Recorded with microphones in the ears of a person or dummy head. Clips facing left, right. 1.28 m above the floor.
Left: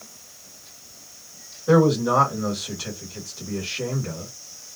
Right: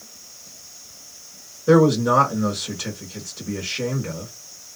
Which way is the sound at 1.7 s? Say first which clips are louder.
Right 2 dB; 40° right (ahead or behind).